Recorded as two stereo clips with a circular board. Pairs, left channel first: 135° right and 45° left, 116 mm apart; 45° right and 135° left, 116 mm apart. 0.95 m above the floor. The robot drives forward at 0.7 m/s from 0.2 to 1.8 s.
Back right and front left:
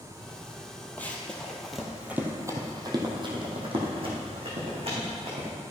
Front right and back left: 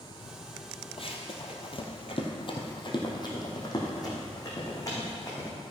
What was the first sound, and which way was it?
Running footsteps, 60° right.